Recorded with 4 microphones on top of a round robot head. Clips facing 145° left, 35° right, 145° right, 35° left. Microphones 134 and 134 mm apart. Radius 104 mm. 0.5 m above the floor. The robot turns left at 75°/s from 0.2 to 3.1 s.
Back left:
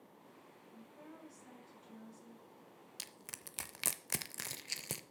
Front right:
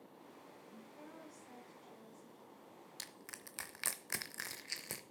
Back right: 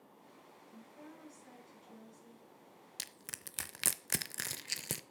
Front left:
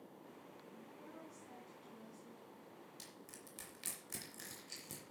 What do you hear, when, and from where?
0.7 s a woman speaking: 105° right, 6 m; by 2.5 s 125° left, 6 m
3.0 s crushing: 135° right, 0.6 m; by 5.0 s 145° right, 0.6 m